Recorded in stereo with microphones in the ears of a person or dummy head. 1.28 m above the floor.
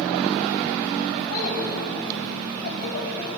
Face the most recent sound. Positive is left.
turn(degrees=75)  # may be behind; listen again after turning